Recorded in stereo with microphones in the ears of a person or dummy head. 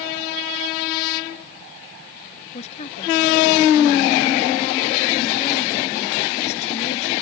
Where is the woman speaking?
40° left (ahead or behind).